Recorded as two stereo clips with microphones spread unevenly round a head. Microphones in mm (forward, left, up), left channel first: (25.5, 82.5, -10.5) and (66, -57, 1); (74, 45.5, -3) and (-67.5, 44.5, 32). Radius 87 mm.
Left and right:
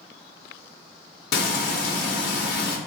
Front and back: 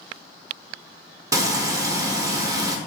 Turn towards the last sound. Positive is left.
turn(degrees=110)